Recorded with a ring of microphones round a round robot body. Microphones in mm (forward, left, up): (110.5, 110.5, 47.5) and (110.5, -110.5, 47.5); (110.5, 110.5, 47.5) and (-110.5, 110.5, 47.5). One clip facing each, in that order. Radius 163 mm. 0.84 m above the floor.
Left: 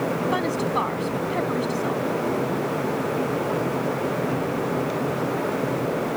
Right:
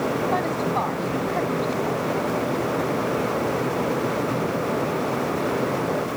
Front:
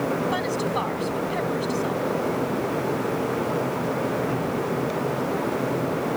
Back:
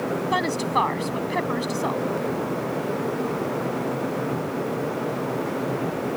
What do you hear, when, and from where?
0.3 s a woman speaking: 160° left